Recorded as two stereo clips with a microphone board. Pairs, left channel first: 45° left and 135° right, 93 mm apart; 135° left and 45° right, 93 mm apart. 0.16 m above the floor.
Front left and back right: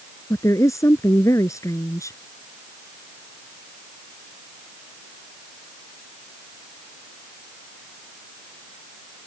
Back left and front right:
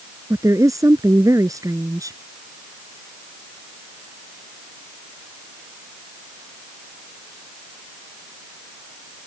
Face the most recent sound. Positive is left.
turn(degrees=0)